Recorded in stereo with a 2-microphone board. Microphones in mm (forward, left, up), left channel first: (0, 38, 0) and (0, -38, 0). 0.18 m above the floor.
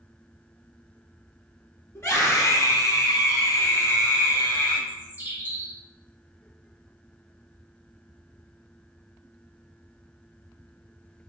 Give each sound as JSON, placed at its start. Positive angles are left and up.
{"t": 1.9, "sound": "a scream", "side_deg": 35, "distance_m": 1.6}
{"t": 4.9, "sound": "a bird", "side_deg": -25, "distance_m": 1.3}